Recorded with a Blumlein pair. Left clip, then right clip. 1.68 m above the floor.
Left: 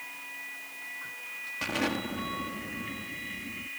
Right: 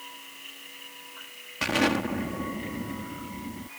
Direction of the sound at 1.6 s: 15° right.